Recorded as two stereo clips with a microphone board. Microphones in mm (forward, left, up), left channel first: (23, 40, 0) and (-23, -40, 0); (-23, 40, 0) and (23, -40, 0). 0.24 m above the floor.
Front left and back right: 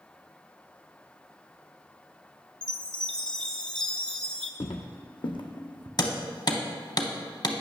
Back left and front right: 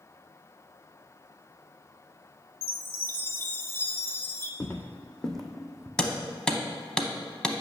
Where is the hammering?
40° left, 0.6 m.